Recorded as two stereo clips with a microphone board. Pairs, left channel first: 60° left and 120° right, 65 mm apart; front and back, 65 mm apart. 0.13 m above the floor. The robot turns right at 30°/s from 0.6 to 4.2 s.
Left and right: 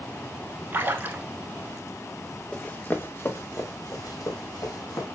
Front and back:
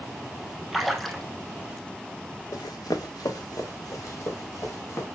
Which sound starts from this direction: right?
A splash, at 0.7 s.